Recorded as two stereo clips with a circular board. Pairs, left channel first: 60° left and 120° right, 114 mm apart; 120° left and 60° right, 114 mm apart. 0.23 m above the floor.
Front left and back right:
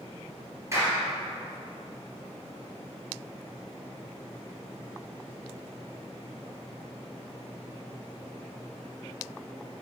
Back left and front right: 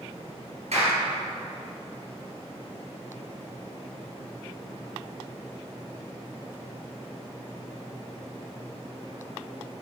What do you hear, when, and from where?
0.7 s a clap: 55° right, 3 m